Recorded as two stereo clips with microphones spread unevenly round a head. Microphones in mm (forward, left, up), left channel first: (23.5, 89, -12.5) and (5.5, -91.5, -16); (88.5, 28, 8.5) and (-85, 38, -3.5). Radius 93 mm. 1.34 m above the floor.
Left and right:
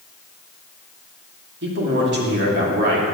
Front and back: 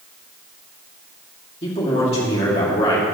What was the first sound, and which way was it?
A man speaking, 65° right.